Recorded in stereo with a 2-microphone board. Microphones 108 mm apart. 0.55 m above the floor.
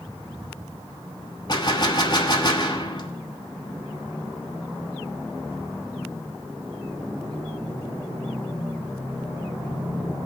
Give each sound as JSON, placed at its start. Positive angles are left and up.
{"t": 1.5, "sound": "a gunshot", "side_deg": 40, "distance_m": 1.2}